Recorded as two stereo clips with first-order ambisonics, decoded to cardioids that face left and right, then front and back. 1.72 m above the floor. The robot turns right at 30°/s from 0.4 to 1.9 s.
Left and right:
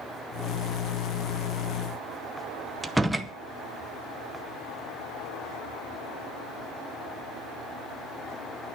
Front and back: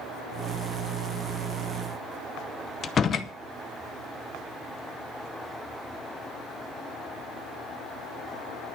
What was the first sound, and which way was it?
A door slam, 10° right.